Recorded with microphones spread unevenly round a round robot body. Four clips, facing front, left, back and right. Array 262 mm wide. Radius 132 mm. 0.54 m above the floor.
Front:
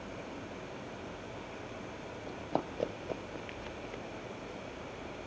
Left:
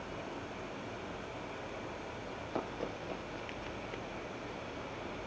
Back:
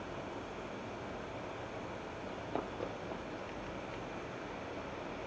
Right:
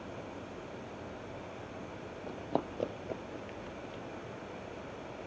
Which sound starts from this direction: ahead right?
Running footsteps, at 2.3 s.